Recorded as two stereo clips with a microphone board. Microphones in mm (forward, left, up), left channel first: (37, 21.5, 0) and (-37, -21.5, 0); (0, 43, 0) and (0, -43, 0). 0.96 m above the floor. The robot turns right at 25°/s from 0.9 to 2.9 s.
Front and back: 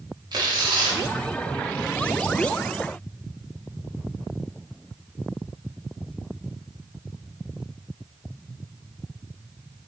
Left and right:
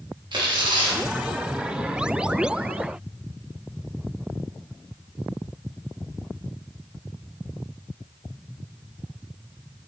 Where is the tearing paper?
115° right, 0.8 m; by 1.0 s 110° right, 0.8 m.